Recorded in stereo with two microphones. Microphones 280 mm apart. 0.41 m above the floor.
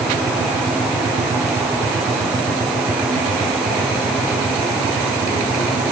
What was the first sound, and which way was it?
Only background noise.